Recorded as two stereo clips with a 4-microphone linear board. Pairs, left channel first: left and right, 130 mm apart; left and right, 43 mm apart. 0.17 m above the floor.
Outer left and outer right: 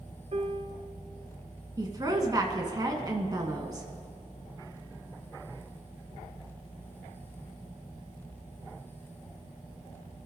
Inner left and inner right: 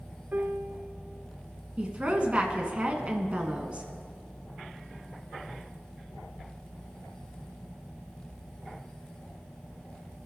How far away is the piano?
About 0.7 m.